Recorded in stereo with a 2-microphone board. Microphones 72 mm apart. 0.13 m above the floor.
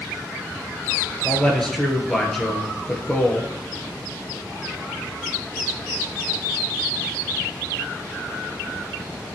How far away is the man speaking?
About 2.0 m.